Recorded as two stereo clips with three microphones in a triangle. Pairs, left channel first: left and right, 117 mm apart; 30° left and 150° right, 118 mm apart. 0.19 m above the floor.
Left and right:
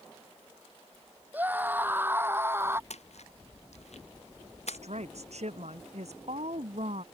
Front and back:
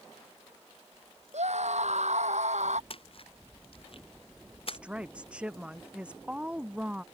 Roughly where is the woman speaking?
Right.